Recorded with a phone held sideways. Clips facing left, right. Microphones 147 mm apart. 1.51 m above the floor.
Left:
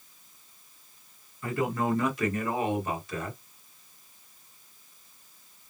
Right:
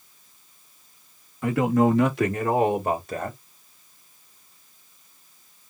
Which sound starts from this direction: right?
A man speaking, at 1.4 s.